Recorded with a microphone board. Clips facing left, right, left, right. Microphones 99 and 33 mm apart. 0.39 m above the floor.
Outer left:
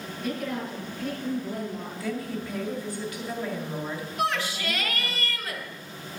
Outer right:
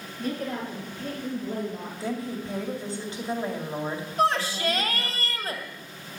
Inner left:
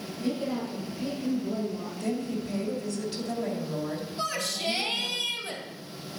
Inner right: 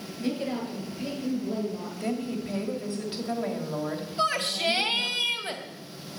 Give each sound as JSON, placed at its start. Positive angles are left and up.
{"t": 0.2, "sound": "a woman speaking", "side_deg": -40, "distance_m": 7.0}
{"t": 2.0, "sound": "a woman speaking", "side_deg": -30, "distance_m": 2.5}
{"t": 4.2, "sound": "a shout", "side_deg": -40, "distance_m": 2.0}